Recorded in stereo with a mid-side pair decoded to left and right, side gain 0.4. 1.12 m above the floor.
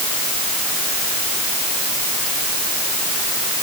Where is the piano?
No piano in this recording.